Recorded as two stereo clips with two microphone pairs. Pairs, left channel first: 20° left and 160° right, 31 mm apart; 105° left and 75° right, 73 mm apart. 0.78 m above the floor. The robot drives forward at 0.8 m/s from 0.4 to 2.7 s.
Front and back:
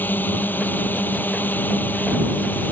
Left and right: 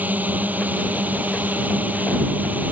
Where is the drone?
5° right.